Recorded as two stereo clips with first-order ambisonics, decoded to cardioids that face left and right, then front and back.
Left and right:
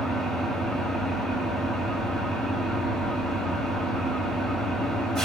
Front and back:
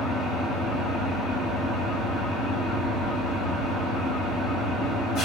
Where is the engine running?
35° right, 1.3 m.